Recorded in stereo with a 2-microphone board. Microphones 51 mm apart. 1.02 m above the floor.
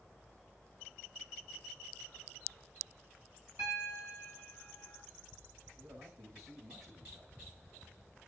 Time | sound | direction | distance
3.6 | a piano | 85° right | 7.5 m
5.8 | a man speaking | 85° right | 7.5 m